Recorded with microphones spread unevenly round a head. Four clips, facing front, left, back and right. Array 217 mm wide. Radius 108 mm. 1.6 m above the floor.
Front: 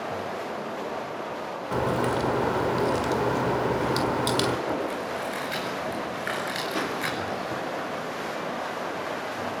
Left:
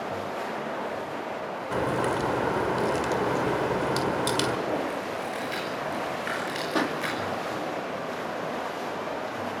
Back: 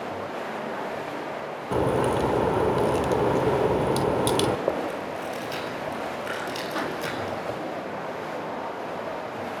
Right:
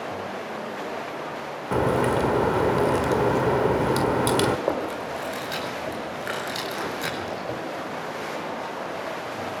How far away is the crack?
About 1.5 m.